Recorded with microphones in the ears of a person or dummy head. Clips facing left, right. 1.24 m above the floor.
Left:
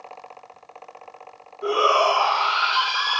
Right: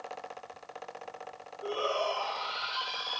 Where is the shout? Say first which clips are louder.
Left 11 dB; 85° left.